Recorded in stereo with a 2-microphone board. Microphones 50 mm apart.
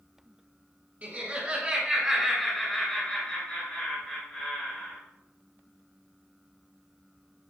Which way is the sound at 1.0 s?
35° right (ahead or behind).